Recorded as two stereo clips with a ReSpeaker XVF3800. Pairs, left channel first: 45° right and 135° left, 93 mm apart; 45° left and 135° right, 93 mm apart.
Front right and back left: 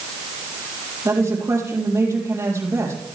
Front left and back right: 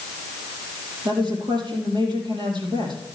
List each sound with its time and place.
1.1 s a woman speaking: 165° right, 4 m